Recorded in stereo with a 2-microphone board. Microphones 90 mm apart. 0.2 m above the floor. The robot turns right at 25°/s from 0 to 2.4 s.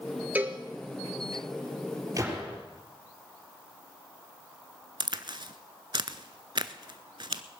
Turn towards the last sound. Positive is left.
turn(degrees=-55)  # may be behind; listen again after turning